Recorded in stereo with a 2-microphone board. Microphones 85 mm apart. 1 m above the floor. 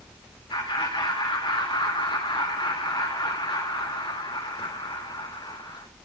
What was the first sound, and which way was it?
Laughter, 75° left (ahead or behind).